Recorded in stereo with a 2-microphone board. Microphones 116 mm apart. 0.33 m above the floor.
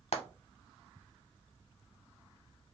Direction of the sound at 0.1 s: 70° left (ahead or behind).